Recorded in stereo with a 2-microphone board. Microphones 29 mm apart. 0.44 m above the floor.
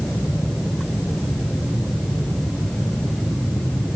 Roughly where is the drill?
No drill in this recording.